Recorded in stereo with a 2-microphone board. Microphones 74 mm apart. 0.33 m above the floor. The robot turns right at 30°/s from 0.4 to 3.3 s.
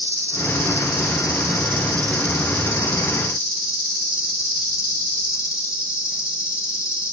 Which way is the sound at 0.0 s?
35° right.